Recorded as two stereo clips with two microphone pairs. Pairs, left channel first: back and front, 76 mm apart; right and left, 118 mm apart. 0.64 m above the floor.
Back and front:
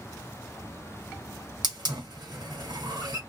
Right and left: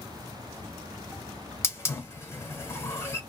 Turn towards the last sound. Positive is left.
turn(degrees=-20)